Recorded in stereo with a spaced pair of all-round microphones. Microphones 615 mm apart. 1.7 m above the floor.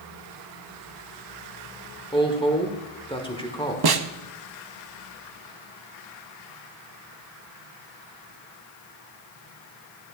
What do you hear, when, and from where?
2.1 s a woman speaking: 10° left (ahead or behind), 1.2 m
3.8 s a snare drum: 40° right (ahead or behind), 0.5 m